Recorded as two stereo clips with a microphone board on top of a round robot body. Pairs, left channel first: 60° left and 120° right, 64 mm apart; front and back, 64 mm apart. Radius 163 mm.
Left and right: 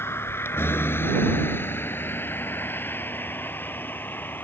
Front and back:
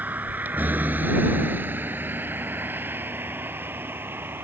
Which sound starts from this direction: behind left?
A vehicle, at 0.0 s.